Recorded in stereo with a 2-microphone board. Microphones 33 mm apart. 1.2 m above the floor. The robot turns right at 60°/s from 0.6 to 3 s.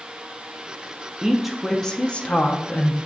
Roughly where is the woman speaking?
Ahead.